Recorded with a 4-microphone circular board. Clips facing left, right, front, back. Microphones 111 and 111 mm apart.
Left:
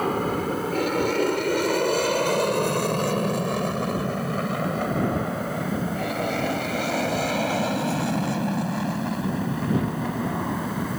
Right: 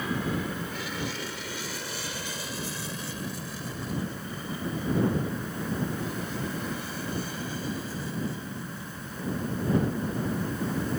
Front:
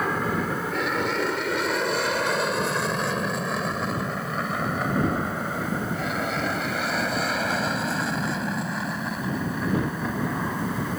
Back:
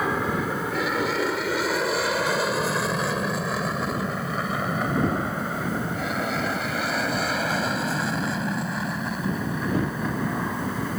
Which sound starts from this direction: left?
An aircraft, at 0.0 s.